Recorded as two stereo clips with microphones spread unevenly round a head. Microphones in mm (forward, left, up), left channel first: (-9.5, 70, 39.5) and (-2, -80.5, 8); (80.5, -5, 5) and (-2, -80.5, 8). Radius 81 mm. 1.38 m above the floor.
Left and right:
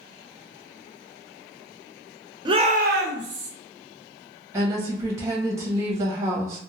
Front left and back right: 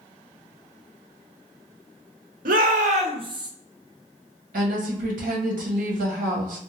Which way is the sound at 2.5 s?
150° right.